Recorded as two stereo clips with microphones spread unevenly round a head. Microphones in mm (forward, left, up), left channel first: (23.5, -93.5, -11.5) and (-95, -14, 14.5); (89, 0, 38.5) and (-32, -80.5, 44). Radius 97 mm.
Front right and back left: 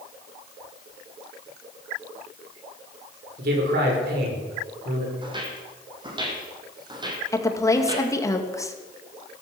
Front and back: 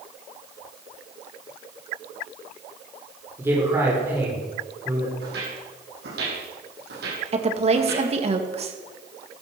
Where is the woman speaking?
105° right, 2.5 m.